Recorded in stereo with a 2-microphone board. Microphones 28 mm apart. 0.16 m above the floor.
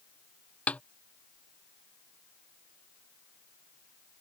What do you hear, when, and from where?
0.7 s a snare drum: 55° left (ahead or behind)